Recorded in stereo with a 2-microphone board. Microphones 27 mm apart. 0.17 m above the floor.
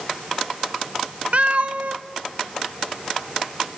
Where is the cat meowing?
55° right (ahead or behind), 0.5 m.